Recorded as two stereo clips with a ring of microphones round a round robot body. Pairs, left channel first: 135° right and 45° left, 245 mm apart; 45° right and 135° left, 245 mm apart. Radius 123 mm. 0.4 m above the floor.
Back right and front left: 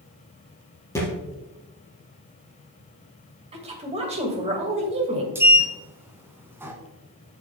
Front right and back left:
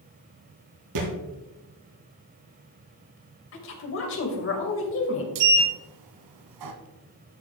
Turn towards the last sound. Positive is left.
turn(degrees=125)